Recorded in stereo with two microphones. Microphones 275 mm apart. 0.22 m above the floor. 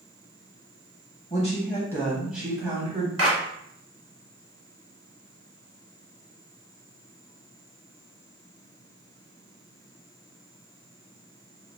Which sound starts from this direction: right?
A clap, at 3.2 s.